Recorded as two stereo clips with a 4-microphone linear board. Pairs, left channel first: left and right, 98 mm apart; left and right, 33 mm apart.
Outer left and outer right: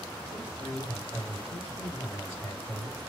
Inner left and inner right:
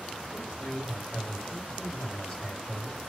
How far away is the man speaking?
About 1.9 m.